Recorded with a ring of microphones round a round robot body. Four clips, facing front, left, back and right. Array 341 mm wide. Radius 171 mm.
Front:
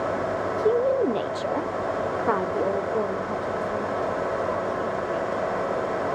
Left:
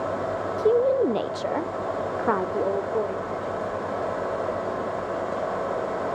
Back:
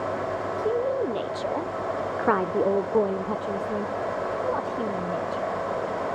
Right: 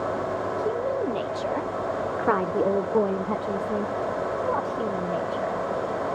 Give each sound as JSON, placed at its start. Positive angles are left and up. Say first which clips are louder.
{"t": 0.6, "sound": "a woman speaking", "louder": "left 9 dB, front 5 dB", "azimuth_deg": 60, "distance_m": 1.3}